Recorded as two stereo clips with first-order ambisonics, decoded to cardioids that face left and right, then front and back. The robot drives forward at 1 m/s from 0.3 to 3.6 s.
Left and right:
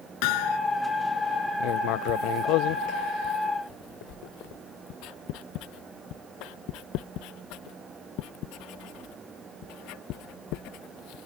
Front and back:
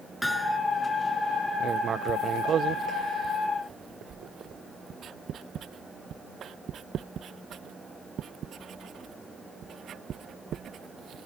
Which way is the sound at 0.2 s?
85° left.